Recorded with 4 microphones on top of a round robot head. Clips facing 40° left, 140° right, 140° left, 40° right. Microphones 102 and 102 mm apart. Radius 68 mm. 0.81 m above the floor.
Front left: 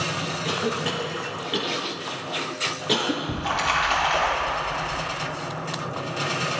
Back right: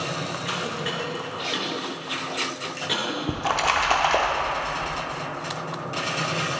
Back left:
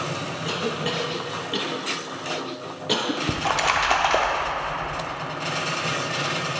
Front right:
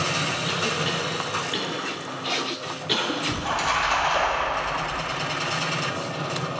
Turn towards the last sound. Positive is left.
turn(degrees=170)